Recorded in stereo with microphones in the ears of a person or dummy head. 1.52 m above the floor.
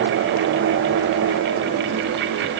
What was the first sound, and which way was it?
Only background noise.